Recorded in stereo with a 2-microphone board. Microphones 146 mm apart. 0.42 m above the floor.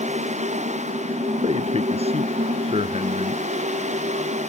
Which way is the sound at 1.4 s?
45° right (ahead or behind).